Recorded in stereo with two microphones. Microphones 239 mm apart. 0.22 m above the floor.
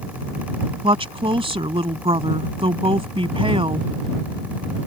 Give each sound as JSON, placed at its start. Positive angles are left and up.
{"t": 0.8, "sound": "a woman speaking", "side_deg": -20}